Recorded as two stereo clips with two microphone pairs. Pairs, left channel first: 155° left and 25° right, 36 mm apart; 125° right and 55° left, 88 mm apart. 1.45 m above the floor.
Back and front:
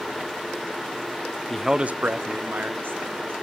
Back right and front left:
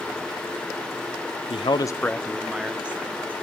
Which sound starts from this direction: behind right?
A man speaking, at 1.5 s.